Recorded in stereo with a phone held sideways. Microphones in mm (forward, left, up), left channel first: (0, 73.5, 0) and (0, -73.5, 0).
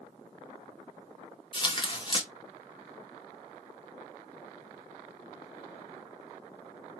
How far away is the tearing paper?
About 0.7 m.